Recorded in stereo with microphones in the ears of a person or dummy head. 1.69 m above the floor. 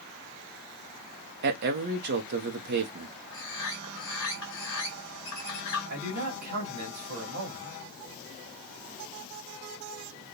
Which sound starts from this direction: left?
A bird, at 3.3 s.